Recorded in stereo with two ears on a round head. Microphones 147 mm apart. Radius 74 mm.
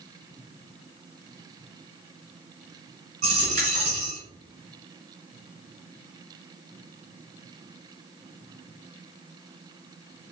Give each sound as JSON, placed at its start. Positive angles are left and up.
{"t": 3.2, "sound": "a dropped coin", "side_deg": -45, "distance_m": 1.4}